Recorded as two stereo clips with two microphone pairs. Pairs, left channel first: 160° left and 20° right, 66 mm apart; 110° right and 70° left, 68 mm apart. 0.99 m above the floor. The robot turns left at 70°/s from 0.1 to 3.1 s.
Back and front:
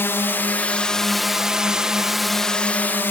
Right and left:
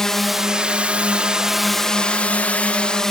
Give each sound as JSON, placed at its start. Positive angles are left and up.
{"t": 0.0, "sound": "a drone", "azimuth_deg": 175}